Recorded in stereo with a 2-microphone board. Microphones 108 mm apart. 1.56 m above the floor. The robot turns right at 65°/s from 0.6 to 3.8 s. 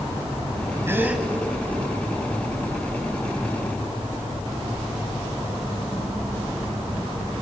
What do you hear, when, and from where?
0.9 s a gasp: 25° right (ahead or behind), 1.7 m; by 1.2 s 10° right (ahead or behind), 1.7 m